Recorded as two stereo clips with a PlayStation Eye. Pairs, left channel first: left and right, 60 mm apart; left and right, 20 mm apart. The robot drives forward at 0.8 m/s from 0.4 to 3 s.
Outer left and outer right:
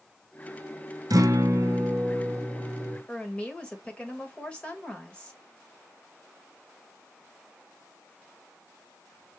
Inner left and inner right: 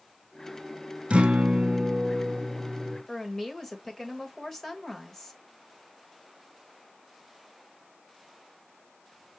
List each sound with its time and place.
1.1 s a guitar: 80° right, 0.9 m; by 3.0 s 25° right (ahead or behind), 1.9 m
3.1 s a woman speaking: 15° left (ahead or behind), 1.4 m